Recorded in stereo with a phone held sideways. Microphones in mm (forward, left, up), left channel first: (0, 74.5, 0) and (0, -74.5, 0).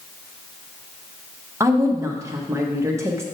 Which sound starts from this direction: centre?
A woman speaking, at 1.6 s.